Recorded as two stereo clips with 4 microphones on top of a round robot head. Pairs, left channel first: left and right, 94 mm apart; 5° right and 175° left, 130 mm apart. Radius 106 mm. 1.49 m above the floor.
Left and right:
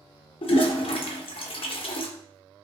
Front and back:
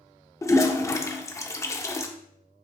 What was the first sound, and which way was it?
A toilet flushing, 65° left.